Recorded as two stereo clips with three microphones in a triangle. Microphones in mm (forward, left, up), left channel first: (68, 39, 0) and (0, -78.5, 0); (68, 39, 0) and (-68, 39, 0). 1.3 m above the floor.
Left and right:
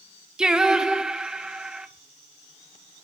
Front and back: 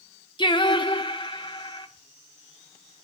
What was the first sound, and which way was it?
Singing, 40° right.